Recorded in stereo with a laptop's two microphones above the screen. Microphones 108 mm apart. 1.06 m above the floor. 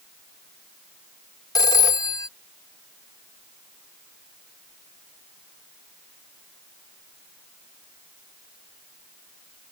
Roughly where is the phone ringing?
Left.